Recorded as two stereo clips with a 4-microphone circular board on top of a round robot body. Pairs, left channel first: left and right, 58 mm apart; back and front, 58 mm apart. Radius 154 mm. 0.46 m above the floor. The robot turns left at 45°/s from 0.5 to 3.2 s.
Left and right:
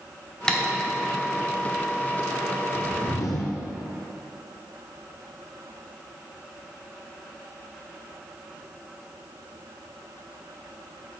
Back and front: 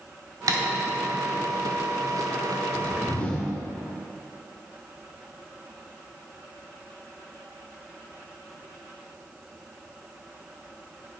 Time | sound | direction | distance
0.5 | tapping | 10° left | 1.3 m
2.7 | a whoosh | 130° left | 1.0 m